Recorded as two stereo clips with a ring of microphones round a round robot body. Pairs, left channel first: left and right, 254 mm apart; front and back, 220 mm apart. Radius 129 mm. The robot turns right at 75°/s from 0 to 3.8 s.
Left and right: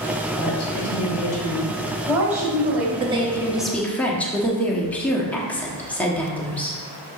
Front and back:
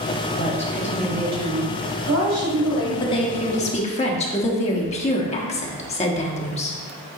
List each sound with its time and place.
0.4 s a woman speaking: 45° left, 2.5 m; by 2.9 s 125° right, 2.5 m
3.0 s a woman speaking: 50° right, 1.0 m; by 6.8 s 10° left, 1.0 m